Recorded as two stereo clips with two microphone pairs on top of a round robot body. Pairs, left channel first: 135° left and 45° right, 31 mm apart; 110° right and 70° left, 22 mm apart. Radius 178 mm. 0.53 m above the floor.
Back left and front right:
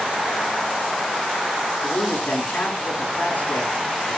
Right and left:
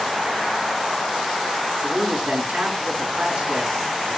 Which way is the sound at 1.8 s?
100° left.